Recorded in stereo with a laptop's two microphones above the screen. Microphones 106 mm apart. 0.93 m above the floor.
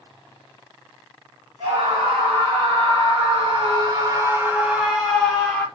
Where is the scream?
75° right (ahead or behind), 1.5 m; by 5.7 s 15° left (ahead or behind), 1.1 m.